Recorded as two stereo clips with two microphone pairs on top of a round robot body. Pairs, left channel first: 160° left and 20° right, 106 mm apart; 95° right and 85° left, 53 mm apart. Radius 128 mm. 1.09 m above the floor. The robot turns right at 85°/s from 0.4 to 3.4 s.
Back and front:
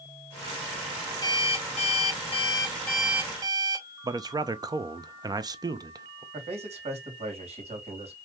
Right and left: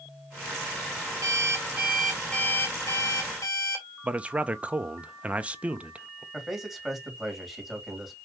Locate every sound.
1.2 s an alarm clock: 100° left, 1.0 m; by 3.9 s 75° right, 1.0 m
4.0 s a man speaking: 25° left, 1.0 m
6.3 s a man speaking: straight ahead, 3 m